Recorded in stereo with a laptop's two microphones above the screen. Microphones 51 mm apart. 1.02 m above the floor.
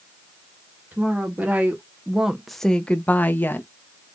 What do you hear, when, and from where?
0.9 s a woman speaking: 40° right (ahead or behind), 1.2 m; by 3.7 s 45° left (ahead or behind), 0.9 m